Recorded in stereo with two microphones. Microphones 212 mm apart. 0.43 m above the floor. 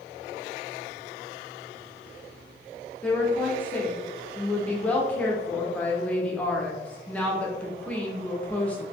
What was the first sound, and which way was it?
A woman speaking, 5° left (ahead or behind).